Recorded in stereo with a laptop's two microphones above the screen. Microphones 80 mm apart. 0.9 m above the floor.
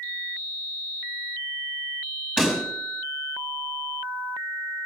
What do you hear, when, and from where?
2.4 s a pop: 10° right (ahead or behind), 5 m